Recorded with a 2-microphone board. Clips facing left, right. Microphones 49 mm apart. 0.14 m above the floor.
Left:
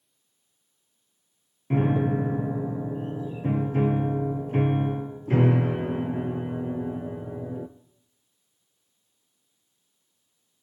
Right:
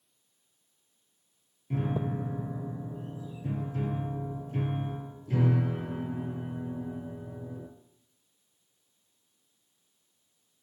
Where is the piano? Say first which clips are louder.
Left 8 dB; 50° left (ahead or behind), 0.6 m.